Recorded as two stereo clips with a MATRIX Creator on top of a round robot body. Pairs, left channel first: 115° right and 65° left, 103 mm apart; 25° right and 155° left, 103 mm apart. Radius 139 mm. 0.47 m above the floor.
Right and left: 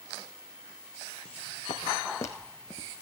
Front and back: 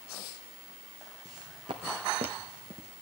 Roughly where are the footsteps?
Behind right.